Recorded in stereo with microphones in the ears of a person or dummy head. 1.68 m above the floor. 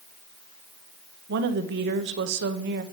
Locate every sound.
1.3 s a woman speaking: 60° right (ahead or behind), 1.2 m